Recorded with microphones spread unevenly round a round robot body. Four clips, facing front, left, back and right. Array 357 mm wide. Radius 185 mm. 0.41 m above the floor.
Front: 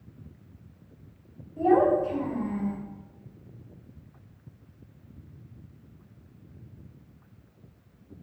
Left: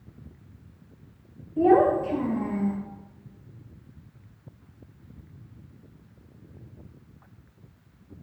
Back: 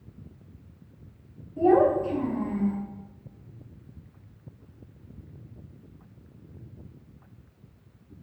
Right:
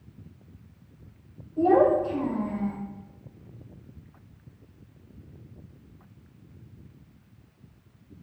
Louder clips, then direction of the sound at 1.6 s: Left 1 dB, back 1 dB; 100° left.